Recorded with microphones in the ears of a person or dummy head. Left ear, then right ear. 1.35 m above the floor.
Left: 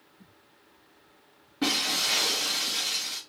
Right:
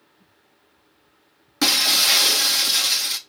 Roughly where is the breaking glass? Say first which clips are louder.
Right 9 dB; right.